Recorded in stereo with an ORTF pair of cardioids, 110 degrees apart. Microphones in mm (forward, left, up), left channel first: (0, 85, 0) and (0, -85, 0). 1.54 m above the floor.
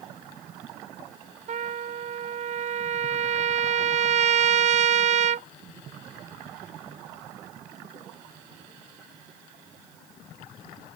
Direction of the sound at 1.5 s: 45° right.